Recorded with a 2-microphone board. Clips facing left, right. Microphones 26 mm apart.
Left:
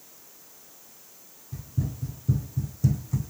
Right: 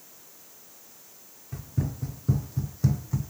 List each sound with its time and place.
1.5 s running footsteps: 75° right (ahead or behind), 0.9 m; by 3.3 s 20° right (ahead or behind), 0.9 m